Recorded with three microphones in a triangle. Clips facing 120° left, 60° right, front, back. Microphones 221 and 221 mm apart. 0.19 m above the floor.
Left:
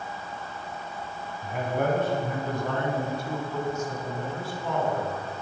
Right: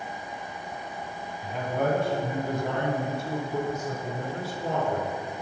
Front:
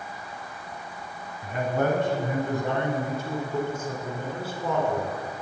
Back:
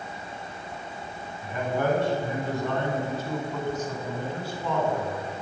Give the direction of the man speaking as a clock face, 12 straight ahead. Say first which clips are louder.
Even, front 1 dB; 10 o'clock.